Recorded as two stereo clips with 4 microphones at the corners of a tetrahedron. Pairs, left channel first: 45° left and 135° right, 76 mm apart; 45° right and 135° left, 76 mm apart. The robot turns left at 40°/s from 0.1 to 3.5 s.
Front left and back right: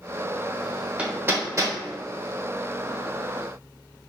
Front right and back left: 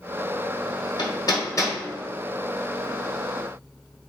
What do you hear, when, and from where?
1.0 s hammering: 60° right, 1.1 m; by 1.8 s 95° right, 1.1 m